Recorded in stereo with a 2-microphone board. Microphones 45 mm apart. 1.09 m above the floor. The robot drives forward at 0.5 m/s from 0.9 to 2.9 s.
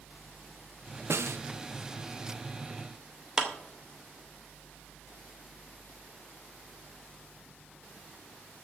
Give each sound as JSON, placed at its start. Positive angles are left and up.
{"t": 1.1, "sound": "a snare drum", "side_deg": -75, "distance_m": 0.6}
{"t": 3.4, "sound": "a clap", "side_deg": -15, "distance_m": 2.5}